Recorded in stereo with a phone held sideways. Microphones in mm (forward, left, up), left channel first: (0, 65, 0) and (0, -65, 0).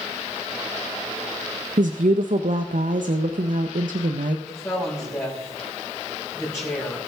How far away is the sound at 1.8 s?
About 0.6 m.